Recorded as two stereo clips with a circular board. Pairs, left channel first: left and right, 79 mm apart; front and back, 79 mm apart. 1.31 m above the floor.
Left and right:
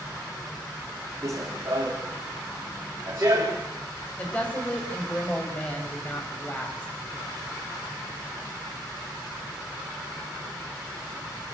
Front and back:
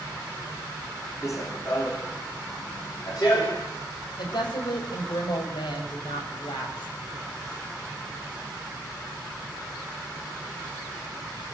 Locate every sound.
1.2 s running footsteps: 45° right, 4 m; by 3.6 s 35° right, 6 m
4.2 s a woman speaking: 20° left, 6 m